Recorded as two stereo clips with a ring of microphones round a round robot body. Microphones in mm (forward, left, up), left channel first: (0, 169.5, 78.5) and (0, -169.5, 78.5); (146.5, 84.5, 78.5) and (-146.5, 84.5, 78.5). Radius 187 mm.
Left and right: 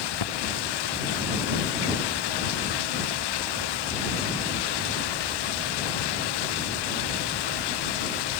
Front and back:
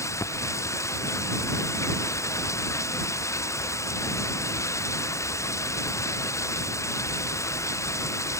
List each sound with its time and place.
0.0 s running water: 80° left